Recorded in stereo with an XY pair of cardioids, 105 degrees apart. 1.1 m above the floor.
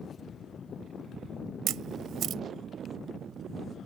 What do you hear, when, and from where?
1.7 s a camera shutter: 70° right